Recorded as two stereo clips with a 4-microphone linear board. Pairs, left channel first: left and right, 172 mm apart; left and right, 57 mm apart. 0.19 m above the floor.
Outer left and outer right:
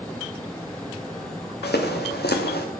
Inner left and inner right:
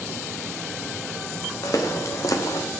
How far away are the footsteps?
About 3.5 m.